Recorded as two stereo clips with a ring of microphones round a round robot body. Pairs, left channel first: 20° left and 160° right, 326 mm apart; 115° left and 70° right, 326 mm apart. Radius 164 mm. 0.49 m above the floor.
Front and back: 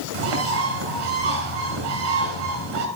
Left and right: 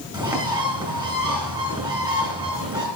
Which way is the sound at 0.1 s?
145° right.